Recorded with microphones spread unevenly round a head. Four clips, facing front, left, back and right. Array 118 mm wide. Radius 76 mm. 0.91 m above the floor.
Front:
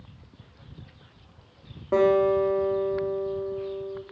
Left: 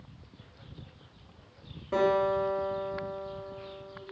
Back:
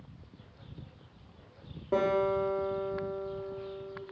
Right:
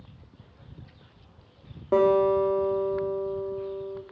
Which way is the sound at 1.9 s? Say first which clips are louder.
Right 5 dB, front 7 dB; 75° right.